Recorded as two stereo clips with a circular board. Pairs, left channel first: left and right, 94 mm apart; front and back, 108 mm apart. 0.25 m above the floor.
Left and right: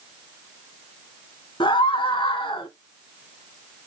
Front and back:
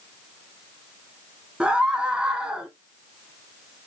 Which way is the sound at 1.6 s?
100° left.